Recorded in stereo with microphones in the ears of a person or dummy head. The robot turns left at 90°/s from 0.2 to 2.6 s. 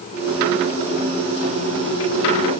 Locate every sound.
Only background noise.